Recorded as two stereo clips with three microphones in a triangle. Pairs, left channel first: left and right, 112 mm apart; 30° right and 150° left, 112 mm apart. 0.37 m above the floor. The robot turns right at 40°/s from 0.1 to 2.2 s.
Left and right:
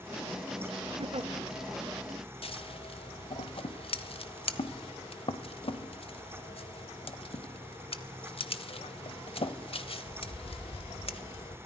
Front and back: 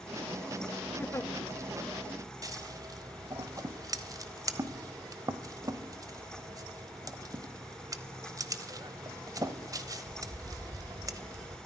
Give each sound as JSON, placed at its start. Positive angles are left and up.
{"t": 1.0, "sound": "a giggle", "azimuth_deg": -100, "distance_m": 0.6}
{"t": 2.4, "sound": "scissors", "azimuth_deg": 100, "distance_m": 1.0}